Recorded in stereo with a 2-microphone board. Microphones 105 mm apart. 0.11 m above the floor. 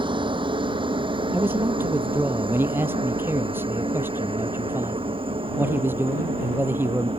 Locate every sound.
0.0 s a helicopter: 50° right (ahead or behind); by 7.2 s 60° right (ahead or behind)
1.3 s a man speaking: 20° right (ahead or behind)